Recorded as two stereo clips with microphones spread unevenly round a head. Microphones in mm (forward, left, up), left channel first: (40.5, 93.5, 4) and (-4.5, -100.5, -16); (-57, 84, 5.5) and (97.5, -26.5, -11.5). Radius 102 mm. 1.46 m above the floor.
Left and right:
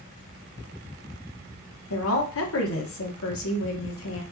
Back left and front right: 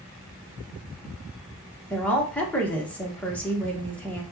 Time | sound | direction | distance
1.9 | a woman speaking | 60° left | 1.3 m